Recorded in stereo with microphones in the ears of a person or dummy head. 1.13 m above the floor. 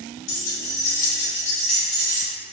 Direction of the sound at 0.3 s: 75° left (ahead or behind).